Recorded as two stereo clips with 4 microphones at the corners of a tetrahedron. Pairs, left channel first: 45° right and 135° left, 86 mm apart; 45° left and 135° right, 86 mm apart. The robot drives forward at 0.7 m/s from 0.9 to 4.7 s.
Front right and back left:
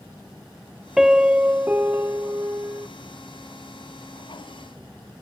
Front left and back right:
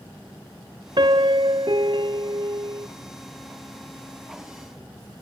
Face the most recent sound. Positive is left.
turn(degrees=-170)